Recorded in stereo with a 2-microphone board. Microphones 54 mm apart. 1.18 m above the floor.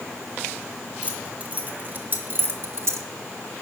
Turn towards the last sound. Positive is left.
turn(degrees=-65)  # may be behind; listen again after turning